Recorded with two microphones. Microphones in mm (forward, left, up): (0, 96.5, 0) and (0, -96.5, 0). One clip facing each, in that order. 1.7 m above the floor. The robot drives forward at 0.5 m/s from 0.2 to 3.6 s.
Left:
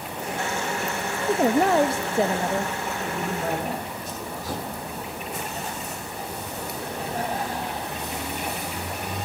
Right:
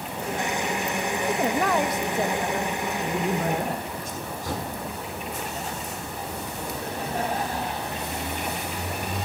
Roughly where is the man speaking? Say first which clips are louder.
Right 3 dB; right.